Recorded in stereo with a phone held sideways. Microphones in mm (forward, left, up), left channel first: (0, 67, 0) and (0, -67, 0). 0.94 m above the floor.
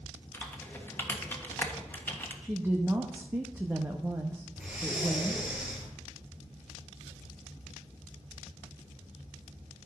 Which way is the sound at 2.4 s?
15° right (ahead or behind).